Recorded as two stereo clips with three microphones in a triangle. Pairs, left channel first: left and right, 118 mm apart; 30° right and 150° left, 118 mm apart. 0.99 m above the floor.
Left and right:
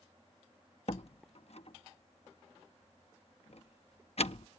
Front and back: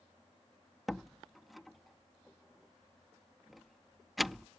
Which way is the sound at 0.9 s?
60° left.